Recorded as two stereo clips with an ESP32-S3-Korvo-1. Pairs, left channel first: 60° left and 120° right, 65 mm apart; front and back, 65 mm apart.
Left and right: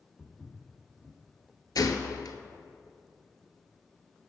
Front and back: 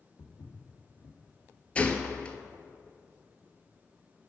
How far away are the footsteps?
About 1.6 m.